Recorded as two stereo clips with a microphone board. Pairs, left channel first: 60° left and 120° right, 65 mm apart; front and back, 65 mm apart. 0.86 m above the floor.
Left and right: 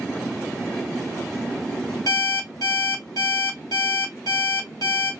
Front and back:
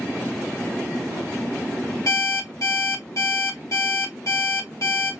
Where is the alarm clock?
40° left, 1.4 m.